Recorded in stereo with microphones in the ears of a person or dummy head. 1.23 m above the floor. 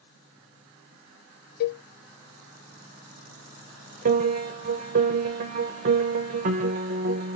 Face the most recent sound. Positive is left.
turn(degrees=-50)  # may be behind; listen again after turning